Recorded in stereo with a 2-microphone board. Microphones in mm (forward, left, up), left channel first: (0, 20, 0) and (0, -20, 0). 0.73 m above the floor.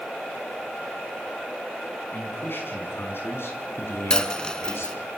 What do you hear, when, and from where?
2.1 s a man speaking: 55° left (ahead or behind), 6 m; by 5.1 s 80° left, 5.5 m
4.1 s a dropped coin: 20° left (ahead or behind), 1.0 m